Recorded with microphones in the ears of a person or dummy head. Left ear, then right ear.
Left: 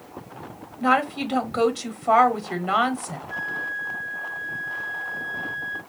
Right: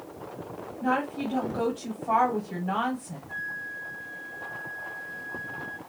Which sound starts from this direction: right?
A flute, at 3.3 s.